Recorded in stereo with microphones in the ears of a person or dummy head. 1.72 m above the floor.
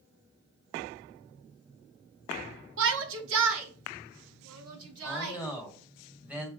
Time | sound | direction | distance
2.8 | a shout | 70° right (ahead or behind) | 0.7 m
5.0 | a man speaking | 5° right (ahead or behind) | 2 m